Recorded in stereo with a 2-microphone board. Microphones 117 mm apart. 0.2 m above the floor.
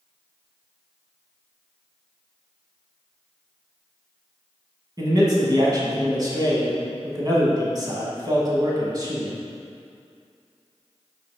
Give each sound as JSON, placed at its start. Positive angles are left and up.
{"t": 5.0, "sound": "a man speaking", "side_deg": -35, "distance_m": 1.3}